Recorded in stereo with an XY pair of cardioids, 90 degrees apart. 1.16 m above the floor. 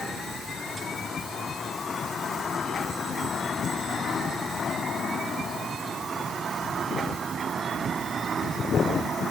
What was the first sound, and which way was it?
Only background noise.